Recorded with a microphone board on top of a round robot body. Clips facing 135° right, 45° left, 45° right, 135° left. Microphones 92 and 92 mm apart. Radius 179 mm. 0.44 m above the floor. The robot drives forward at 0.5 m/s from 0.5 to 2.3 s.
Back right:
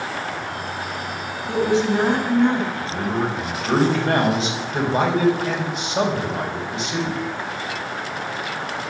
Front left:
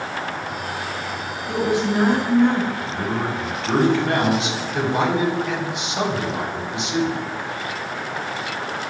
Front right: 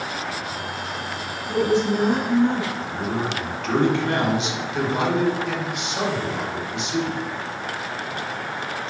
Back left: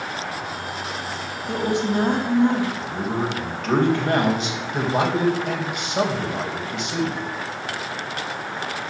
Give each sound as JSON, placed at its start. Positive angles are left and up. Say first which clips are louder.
{"t": 1.5, "sound": "a woman speaking", "louder": "back right 2 dB, front right 2 dB", "azimuth_deg": 160, "distance_m": 3.5}
{"t": 2.8, "sound": "a man speaking", "louder": "back right 1 dB, back left 1 dB", "azimuth_deg": 175, "distance_m": 4.0}